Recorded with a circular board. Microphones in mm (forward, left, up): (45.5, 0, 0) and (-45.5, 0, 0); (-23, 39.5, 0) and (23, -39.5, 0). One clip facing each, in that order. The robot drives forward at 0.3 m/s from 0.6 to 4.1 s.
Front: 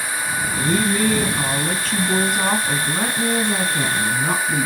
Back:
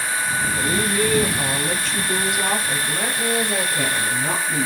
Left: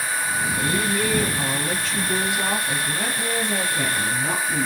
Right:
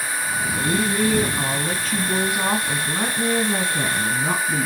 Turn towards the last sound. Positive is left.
turn(degrees=-45)